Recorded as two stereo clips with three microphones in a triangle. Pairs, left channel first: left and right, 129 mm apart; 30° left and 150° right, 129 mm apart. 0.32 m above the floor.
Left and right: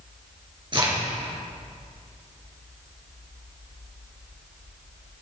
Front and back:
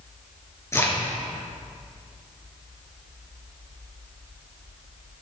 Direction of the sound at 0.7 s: 40° right.